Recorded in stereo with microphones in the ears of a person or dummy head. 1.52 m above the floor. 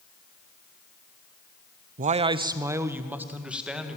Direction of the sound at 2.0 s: 40° right (ahead or behind).